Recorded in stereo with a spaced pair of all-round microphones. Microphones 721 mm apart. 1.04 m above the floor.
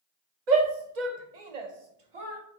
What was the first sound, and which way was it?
A shout, 70° right (ahead or behind).